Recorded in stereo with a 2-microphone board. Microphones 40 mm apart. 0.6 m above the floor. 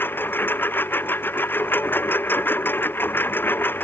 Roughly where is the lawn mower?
Left.